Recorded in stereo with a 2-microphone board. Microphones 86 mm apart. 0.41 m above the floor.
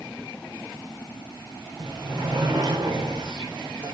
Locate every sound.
1.8 s a sliding door: 60° right (ahead or behind), 5 m